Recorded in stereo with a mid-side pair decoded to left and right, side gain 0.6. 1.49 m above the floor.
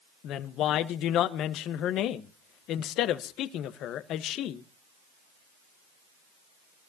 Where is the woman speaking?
60° left, 1.1 m.